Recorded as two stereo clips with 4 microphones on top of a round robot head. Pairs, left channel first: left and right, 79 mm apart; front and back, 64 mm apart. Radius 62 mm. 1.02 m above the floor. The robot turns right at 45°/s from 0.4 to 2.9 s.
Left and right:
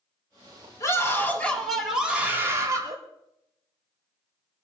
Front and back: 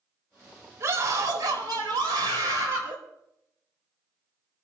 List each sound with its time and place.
0.8 s a scream: 135° left, 5 m; by 3.0 s 130° right, 5 m